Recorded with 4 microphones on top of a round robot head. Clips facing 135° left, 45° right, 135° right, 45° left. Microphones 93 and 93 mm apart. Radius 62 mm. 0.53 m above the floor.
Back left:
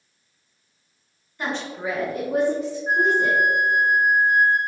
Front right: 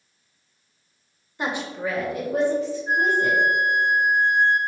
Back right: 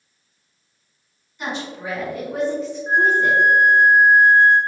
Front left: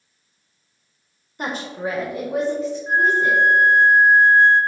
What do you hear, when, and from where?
1.4 s a woman speaking: 15° left, 0.9 m; by 3.4 s 145° left, 2 m
2.9 s a flute: 160° left, 1.0 m